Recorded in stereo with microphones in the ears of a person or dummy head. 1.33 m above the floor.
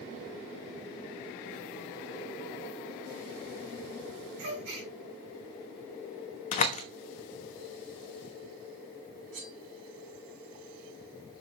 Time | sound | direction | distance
4.4 | a gasp | 60° right (ahead or behind) | 5 m
6.5 | a door slam | 35° left (ahead or behind) | 1.0 m
9.3 | cutlery clinking | 45° right (ahead or behind) | 4 m